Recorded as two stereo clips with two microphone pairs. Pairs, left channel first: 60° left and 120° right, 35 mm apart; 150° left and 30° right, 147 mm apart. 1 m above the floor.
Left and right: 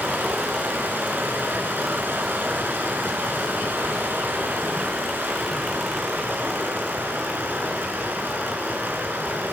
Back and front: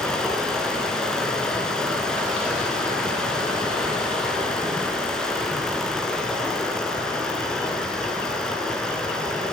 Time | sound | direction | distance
0.0 | running water | 125° right | 5.5 m